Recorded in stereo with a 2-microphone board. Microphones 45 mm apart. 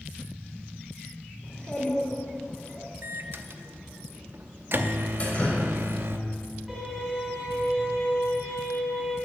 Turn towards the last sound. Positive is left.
turn(degrees=-5)  # may be behind; listen again after turning